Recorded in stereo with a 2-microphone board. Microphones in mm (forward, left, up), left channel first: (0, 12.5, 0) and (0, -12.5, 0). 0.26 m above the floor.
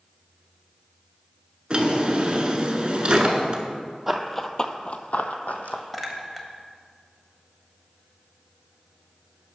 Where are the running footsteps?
5° right (ahead or behind), 0.6 m; by 5.8 s 80° left, 0.9 m.